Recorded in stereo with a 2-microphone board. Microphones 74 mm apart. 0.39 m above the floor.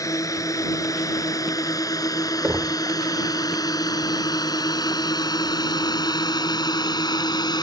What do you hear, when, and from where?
0.0 s a drone: 50° left (ahead or behind); by 7.6 s 75° left (ahead or behind)
2.4 s knocking: 25° right (ahead or behind)